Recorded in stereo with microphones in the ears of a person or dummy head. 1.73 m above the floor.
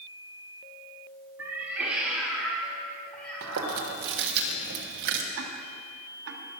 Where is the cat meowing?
15° right (ahead or behind), 2 m; by 3.8 s 10° left (ahead or behind), 4 m.